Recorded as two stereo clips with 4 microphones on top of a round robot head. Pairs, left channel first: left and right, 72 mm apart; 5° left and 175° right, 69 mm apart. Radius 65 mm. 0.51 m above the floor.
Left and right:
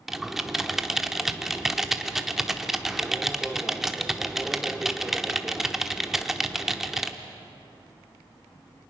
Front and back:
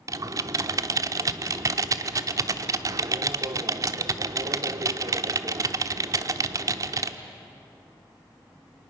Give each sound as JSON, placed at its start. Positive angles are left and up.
{"t": 0.1, "sound": "typing on a keyboard", "azimuth_deg": -175, "distance_m": 0.9}